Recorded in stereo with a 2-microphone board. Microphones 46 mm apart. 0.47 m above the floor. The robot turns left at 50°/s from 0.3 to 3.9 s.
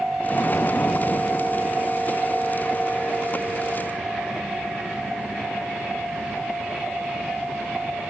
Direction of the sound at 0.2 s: 140° left.